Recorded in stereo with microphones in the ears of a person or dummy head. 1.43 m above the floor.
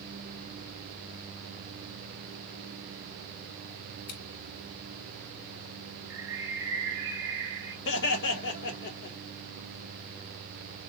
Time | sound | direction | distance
4.1 | scissors | 55° left (ahead or behind) | 2.5 m
6.1 | a bird | 70° right (ahead or behind) | 1.5 m
7.8 | laughter | 65° left (ahead or behind) | 1.8 m